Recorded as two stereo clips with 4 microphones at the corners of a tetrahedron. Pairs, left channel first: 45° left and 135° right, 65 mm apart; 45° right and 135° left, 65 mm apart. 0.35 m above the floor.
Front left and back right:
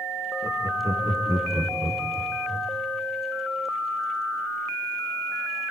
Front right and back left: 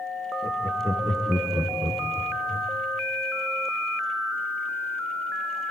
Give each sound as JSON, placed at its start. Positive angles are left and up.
{"t": 0.4, "sound": "laughter", "azimuth_deg": 175, "distance_m": 5.5}